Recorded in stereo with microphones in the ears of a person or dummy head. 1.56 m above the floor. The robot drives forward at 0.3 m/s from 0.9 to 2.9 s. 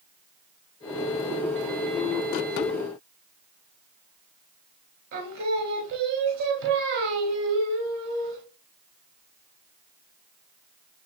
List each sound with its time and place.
5.1 s singing: 65° right (ahead or behind), 0.6 m